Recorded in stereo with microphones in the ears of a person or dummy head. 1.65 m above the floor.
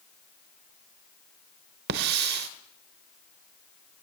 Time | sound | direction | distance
1.9 | a hiss | 55° right (ahead or behind) | 0.8 m